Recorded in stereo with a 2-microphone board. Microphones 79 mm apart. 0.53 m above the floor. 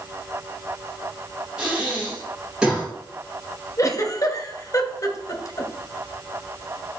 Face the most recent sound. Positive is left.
turn(degrees=40)  # may be behind; listen again after turning